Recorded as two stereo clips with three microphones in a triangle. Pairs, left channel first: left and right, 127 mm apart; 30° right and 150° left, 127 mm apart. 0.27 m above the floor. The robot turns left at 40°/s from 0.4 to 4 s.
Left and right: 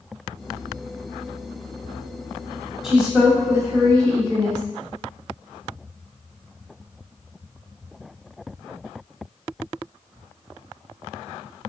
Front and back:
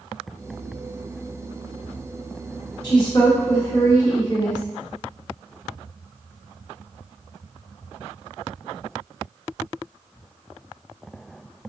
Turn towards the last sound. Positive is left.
turn(degrees=-50)